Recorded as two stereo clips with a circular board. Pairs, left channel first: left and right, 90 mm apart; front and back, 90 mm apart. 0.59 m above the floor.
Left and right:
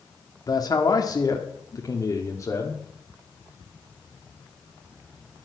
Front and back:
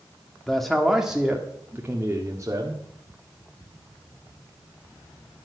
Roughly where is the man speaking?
Left.